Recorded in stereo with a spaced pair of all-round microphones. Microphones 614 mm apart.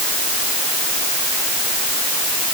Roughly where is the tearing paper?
I don't hear tearing paper.